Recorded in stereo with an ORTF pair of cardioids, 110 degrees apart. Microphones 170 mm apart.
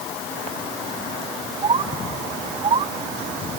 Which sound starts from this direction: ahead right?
A bird, at 1.6 s.